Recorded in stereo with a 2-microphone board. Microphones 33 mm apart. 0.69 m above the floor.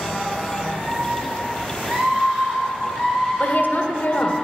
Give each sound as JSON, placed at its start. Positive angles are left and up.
{"t": 0.6, "sound": "a scream", "side_deg": -50, "distance_m": 7.0}
{"t": 3.4, "sound": "a woman speaking", "side_deg": 65, "distance_m": 2.0}